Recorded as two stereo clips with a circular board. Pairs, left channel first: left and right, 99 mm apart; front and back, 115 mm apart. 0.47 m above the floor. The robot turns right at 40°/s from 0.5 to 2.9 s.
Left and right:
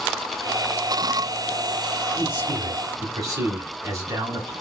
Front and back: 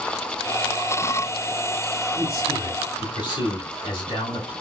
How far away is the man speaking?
About 1.6 m.